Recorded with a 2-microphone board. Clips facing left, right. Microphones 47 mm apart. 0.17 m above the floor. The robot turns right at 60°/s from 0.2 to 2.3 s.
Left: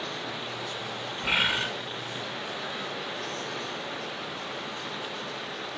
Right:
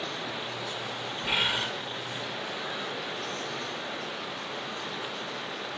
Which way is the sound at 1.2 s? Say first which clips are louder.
Left 2 dB; 40° left (ahead or behind).